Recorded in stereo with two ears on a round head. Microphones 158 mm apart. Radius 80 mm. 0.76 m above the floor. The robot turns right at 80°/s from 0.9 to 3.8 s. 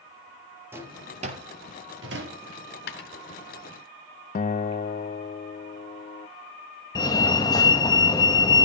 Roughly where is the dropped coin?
Left.